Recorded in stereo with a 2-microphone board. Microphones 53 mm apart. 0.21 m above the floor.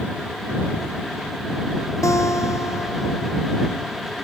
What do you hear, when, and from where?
2.0 s a guitar: 85° left